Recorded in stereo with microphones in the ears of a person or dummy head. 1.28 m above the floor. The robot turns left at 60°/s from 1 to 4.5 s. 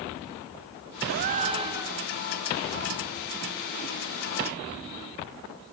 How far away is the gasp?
About 0.8 m.